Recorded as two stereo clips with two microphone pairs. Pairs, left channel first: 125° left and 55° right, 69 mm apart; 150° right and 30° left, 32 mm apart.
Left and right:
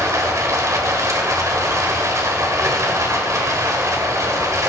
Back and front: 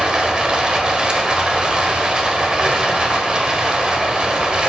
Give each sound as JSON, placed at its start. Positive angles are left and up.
{"t": 0.0, "sound": "running water", "azimuth_deg": -30, "distance_m": 1.4}